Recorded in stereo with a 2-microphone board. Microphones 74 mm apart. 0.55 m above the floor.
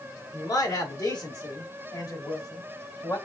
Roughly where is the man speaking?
Left.